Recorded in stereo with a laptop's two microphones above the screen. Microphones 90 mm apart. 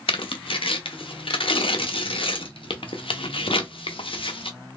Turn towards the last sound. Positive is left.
turn(degrees=80)